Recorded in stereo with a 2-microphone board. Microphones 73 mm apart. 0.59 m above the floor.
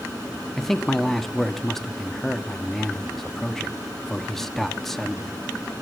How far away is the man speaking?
About 0.5 m.